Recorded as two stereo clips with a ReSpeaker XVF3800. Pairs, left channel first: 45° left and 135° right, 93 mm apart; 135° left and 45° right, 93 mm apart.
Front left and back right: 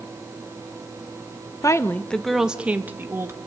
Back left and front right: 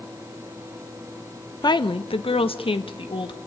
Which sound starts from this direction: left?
A woman speaking, at 1.6 s.